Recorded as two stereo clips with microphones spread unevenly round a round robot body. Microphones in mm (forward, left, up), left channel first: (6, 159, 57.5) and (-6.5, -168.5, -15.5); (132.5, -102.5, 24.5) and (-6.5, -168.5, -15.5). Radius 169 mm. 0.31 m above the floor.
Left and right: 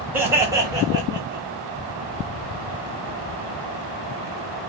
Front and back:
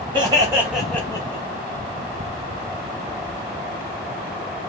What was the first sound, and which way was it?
Laughter, 160° right.